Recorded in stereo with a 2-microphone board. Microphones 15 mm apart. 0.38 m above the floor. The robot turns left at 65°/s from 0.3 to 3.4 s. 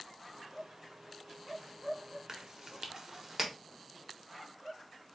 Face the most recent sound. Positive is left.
turn(degrees=-15)  # may be behind; listen again after turning